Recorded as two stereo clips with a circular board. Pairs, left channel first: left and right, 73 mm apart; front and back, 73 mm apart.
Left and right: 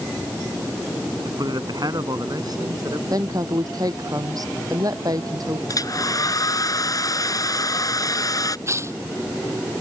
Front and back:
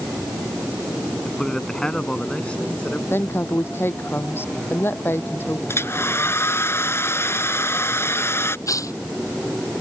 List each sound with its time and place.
1.2 s a man speaking: 85° right; by 3.0 s 70° right
3.1 s a woman speaking: 55° right
5.7 s a hair dryer: 55° left
8.7 s tearing paper: 40° right